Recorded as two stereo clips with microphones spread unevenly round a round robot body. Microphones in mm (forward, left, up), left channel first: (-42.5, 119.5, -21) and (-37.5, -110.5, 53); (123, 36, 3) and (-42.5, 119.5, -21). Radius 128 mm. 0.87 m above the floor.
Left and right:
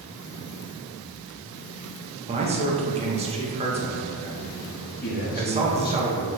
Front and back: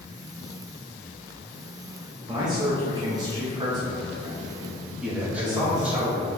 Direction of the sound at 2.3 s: 160° right.